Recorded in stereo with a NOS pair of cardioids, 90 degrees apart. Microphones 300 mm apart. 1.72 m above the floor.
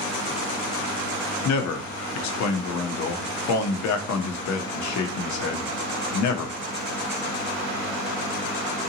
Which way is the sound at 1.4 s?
70° left.